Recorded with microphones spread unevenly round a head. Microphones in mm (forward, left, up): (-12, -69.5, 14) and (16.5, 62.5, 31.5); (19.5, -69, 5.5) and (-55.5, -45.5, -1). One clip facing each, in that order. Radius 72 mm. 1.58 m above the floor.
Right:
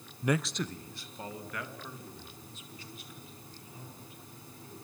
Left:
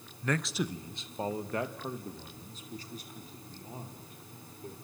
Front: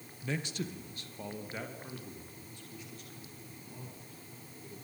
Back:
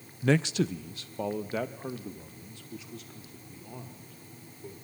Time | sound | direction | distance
0.2 | a man speaking | 175° right | 0.7 m